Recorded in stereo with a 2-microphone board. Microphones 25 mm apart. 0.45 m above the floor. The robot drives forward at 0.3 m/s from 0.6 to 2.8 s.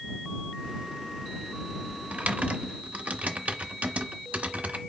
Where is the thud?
I don't hear a thud.